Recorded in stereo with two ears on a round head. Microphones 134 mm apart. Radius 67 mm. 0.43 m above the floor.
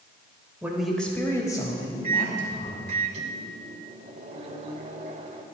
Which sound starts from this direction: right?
A microwave, at 2.0 s.